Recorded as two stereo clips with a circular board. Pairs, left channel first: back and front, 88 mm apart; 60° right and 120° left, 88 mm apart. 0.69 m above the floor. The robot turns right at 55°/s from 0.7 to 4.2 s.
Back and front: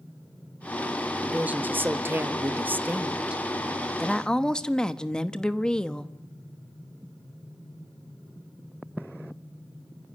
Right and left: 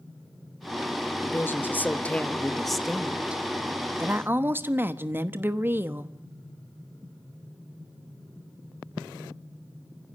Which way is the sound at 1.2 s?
55° right.